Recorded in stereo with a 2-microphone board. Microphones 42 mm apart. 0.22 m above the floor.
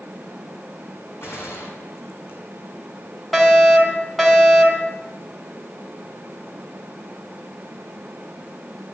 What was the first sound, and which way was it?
A gunshot, 65° left (ahead or behind).